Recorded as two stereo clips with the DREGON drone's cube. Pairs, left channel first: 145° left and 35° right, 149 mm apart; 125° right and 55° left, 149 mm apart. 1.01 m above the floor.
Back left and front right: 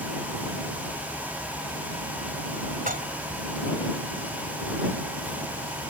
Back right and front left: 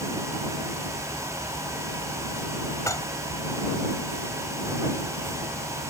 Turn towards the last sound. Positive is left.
turn(degrees=-55)